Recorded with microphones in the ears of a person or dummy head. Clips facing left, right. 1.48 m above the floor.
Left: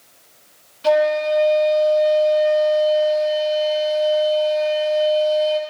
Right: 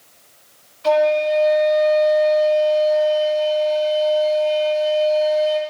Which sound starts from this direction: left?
A flute, at 0.8 s.